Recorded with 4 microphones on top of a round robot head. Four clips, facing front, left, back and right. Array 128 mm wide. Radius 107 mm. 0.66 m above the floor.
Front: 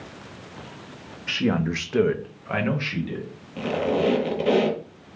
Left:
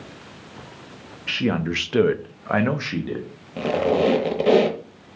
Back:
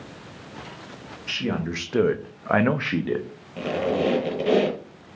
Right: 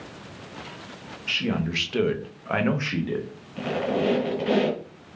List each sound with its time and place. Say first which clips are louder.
1.3 s a man speaking: left 4 dB, front 4 dB; 45° left, 0.6 m; by 3.3 s 170° left, 0.9 m
3.6 s a squeak: left 6 dB, front 1 dB; 90° left, 0.7 m